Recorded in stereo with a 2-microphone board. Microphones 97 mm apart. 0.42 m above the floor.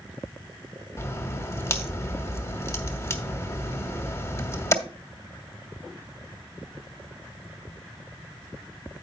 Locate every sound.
1.0 s a crack: 30° left (ahead or behind), 1.2 m